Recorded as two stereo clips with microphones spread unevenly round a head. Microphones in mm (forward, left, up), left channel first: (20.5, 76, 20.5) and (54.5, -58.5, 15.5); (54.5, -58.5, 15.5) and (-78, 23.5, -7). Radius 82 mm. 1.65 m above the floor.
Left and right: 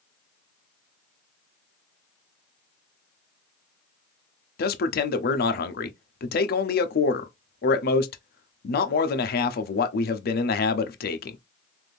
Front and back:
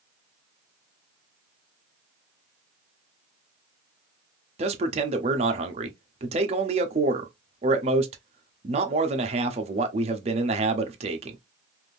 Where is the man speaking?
90° left, 0.7 m.